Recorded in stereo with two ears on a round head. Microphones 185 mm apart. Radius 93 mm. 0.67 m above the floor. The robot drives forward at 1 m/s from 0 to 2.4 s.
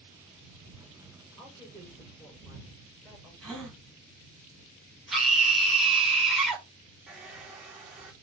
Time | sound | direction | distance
1.4 | a woman speaking | 20° left (ahead or behind) | 8 m
3.4 | a gasp | 5° left (ahead or behind) | 4 m
5.1 | a scream | centre (ahead or behind) | 3 m
7.1 | a hair dryer | 5° right (ahead or behind) | 2 m